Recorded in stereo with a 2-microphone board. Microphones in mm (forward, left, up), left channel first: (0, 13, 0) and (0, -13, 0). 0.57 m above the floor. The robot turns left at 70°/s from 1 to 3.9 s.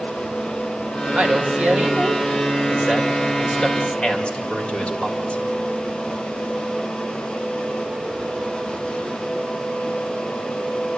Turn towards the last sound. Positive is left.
turn(degrees=135)